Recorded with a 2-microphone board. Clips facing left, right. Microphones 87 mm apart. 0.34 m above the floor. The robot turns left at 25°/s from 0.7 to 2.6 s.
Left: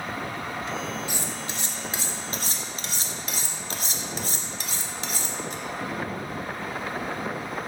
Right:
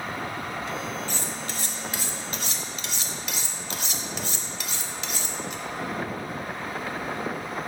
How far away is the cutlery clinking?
About 0.6 m.